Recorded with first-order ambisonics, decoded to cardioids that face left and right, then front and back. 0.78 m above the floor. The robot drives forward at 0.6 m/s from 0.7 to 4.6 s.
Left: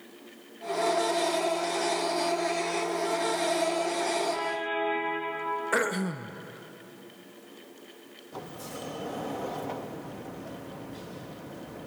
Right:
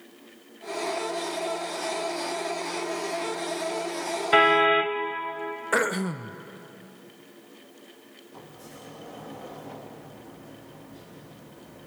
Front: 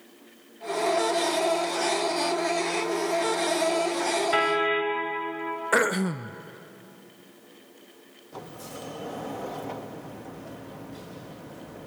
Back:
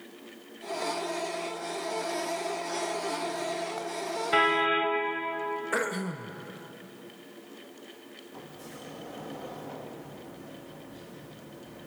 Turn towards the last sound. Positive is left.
turn(degrees=45)